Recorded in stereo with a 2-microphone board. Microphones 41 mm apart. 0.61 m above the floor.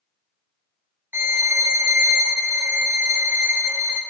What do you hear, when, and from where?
1.1 s a violin: 70° right (ahead or behind), 0.7 m